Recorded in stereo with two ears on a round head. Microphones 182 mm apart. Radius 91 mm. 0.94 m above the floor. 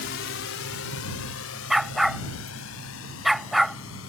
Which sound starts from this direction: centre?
A dog barking, at 1.7 s.